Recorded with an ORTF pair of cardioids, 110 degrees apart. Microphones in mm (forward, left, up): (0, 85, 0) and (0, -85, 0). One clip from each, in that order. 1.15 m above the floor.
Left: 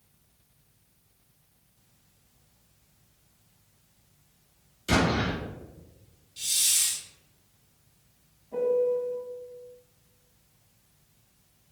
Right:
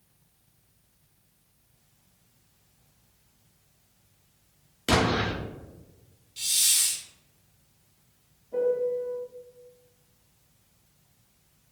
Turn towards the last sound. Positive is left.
turn(degrees=20)